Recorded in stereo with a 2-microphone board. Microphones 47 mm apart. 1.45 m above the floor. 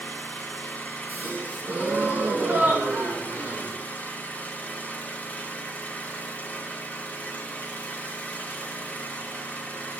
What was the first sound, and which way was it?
An engine running, 35° left (ahead or behind).